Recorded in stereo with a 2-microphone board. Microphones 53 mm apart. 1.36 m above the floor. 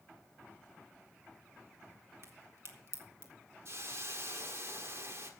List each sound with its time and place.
2.2 s a crack: 55° right (ahead or behind), 2 m
3.6 s a hiss: 55° right (ahead or behind), 1.7 m